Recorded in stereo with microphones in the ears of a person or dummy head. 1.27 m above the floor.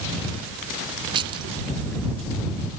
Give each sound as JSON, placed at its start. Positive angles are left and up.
{"t": 1.1, "sound": "keys jangling", "side_deg": -25}